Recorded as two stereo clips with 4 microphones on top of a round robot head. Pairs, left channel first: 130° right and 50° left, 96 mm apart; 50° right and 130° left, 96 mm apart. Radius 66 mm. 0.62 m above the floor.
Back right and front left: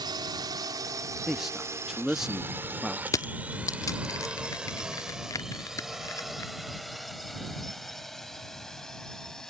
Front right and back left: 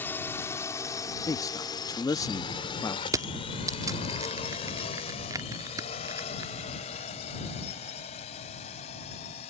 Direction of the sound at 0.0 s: 15° left.